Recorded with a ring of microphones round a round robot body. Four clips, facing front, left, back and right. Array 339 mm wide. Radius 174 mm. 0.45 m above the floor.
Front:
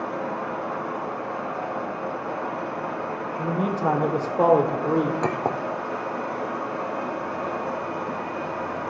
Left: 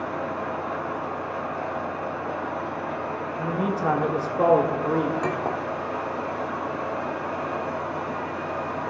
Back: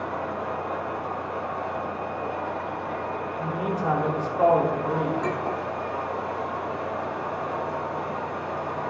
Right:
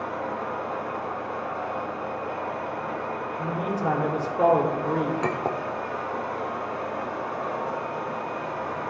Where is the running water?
15° left, 3 m.